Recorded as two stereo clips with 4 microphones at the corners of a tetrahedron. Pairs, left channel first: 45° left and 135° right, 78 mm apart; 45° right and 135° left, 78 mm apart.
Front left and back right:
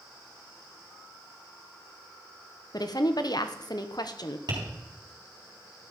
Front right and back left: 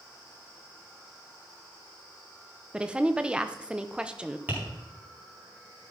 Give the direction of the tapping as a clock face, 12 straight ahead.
5 o'clock.